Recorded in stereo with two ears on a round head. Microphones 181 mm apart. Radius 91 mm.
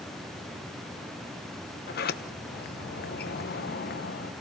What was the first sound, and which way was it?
A sliding door, 50° left (ahead or behind).